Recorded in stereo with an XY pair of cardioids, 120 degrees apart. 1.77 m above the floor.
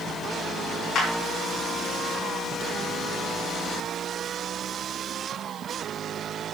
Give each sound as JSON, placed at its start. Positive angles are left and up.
{"t": 0.9, "sound": "a clap", "azimuth_deg": 50, "distance_m": 3.5}